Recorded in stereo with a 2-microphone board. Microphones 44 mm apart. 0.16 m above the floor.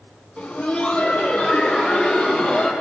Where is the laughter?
25° left (ahead or behind), 1.2 m; by 2.7 s 5° left (ahead or behind), 2.5 m.